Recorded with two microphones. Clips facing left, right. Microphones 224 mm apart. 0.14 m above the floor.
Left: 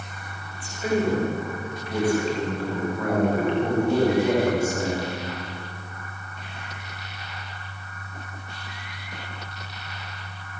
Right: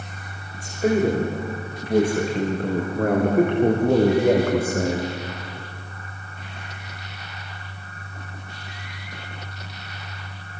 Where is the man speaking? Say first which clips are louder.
Right 4 dB; 40° right (ahead or behind), 10 m; by 5.2 s 55° right (ahead or behind), 8 m.